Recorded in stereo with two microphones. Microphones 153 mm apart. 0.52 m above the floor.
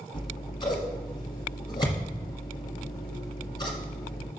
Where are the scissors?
30° left (ahead or behind), 1.7 m.